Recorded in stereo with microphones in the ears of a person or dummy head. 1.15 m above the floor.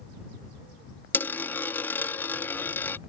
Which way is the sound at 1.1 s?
15° left (ahead or behind).